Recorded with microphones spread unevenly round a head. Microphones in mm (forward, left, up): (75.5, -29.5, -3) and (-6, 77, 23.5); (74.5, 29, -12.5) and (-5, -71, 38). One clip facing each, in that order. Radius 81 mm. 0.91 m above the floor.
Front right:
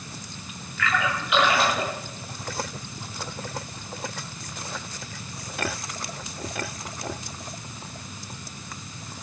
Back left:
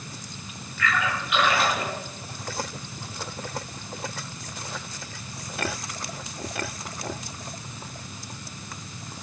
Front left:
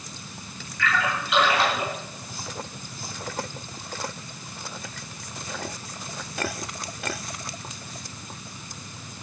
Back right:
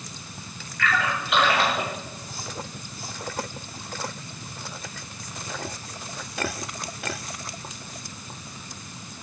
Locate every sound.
0.8 s a splash: 95° right, 7.5 m